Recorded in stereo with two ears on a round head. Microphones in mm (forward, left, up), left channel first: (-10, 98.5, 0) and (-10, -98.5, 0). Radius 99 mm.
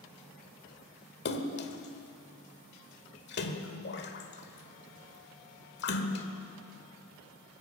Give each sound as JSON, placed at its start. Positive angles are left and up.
{"t": 1.2, "sound": "a splash", "side_deg": 50, "distance_m": 1.4}